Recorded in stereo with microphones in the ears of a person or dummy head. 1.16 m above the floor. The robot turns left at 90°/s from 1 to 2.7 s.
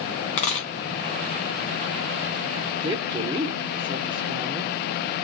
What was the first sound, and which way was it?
A dropped coin, 20° left (ahead or behind).